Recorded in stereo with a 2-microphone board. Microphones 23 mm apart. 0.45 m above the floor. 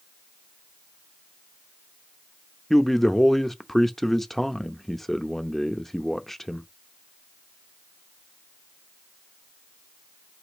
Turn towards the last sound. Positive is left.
turn(degrees=15)  # may be behind; listen again after turning